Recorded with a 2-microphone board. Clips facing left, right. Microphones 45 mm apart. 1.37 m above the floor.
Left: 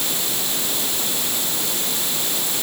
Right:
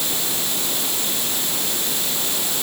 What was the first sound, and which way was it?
Only background noise.